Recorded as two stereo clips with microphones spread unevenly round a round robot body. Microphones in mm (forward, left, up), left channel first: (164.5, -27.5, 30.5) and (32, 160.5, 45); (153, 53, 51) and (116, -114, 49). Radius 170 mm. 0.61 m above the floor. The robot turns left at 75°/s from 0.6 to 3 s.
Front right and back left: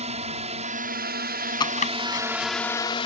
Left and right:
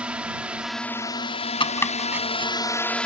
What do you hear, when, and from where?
0.0 s a drone: 175° left; by 3.1 s 5° right
1.6 s chopping: 20° left; by 2.5 s 50° right